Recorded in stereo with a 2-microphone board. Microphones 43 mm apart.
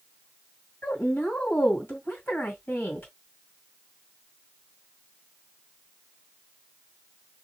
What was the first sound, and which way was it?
A woman speaking, 45° left (ahead or behind).